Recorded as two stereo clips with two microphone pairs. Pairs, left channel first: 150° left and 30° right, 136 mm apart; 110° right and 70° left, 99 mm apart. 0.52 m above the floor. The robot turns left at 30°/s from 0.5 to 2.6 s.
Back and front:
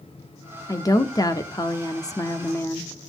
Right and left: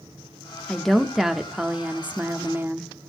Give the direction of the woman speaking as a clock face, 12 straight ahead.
6 o'clock.